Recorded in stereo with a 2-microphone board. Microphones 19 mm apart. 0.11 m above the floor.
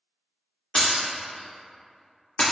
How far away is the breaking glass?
About 1.7 m.